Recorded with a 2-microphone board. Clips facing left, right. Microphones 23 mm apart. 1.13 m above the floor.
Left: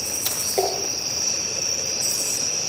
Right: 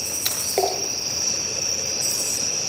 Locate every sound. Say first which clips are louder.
0.2 s a splash: right 1 dB; 40° right (ahead or behind), 8 m